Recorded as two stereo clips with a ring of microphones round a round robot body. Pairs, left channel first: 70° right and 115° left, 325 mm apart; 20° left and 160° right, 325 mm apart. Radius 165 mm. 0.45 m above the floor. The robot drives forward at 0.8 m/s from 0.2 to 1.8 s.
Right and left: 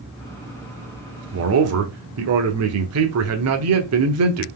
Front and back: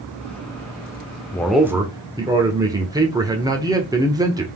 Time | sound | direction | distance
1.3 | a man speaking | 100° left | 1.0 m